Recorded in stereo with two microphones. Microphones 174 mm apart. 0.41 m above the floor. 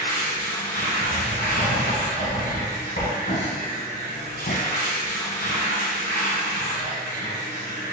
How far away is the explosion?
About 0.6 m.